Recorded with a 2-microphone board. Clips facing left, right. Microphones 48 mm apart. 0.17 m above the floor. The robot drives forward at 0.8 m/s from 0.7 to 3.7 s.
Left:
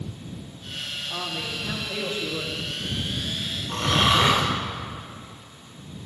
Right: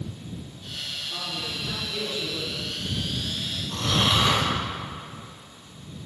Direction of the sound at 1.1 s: 25° left (ahead or behind).